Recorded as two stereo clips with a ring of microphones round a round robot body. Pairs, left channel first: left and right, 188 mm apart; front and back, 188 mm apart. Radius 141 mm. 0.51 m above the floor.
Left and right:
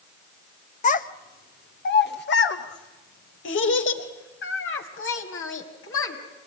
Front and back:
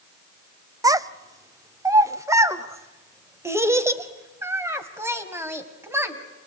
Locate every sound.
0.8 s a child speaking: 115° left, 0.8 m; by 6.2 s 100° left, 3.5 m